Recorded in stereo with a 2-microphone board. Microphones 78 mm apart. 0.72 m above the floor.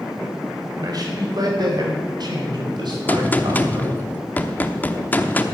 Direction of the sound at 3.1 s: 20° left (ahead or behind).